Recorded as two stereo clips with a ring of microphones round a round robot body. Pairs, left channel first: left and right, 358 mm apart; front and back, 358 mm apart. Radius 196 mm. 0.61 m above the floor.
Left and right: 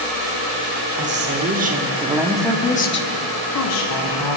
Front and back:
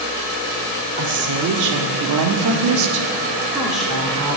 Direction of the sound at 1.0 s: 145° right.